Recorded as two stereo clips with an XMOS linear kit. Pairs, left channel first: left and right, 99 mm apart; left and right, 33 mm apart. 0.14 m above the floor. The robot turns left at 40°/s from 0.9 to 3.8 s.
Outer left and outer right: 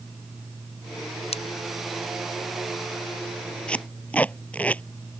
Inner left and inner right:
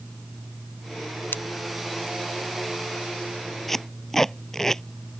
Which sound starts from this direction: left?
Scissors, at 1.3 s.